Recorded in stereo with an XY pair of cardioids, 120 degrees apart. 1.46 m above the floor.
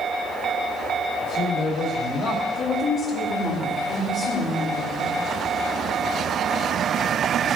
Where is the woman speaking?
50° left, 4 m.